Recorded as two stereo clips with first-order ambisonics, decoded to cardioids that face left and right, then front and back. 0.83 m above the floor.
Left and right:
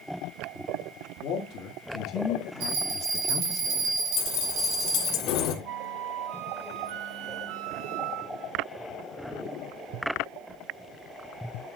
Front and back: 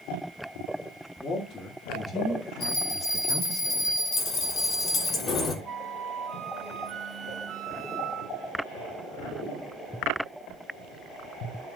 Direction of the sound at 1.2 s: 70° left.